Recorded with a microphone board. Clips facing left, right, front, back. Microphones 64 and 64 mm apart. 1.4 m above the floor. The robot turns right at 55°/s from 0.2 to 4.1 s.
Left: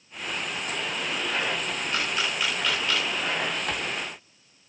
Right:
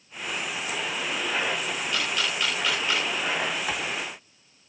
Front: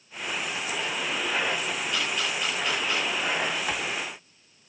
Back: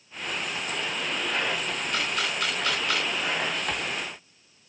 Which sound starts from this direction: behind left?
A camera shutter, at 1.9 s.